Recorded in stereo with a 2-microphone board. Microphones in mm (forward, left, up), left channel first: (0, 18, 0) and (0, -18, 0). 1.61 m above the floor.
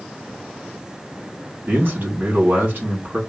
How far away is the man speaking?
About 2.5 m.